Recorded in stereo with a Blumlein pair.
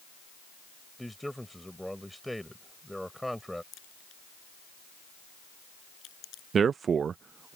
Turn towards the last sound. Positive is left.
turn(degrees=-20)